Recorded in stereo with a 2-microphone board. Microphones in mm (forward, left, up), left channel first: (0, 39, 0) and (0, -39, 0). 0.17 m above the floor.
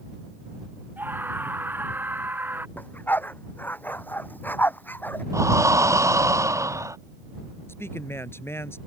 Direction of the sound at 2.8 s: 25° left (ahead or behind).